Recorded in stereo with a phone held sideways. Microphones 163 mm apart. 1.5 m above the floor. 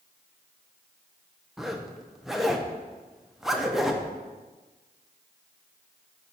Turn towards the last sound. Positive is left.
turn(degrees=0)  # may be behind; listen again after turning